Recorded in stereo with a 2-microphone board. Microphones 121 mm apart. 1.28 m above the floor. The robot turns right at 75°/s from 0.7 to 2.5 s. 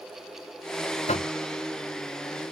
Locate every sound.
1.1 s knocking: 75° left (ahead or behind); by 1.3 s 55° left (ahead or behind)